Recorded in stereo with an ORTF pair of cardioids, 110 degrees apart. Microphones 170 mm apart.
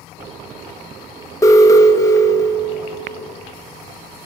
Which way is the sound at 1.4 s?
20° left.